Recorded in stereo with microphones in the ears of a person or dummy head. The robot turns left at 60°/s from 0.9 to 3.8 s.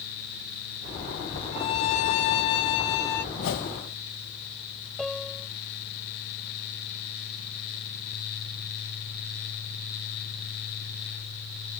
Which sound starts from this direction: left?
A whoosh, at 3.4 s.